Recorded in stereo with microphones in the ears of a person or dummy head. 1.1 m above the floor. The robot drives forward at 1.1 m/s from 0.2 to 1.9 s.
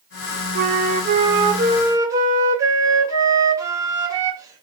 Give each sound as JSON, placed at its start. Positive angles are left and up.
{"t": 0.6, "sound": "a flute", "side_deg": -60, "distance_m": 0.7}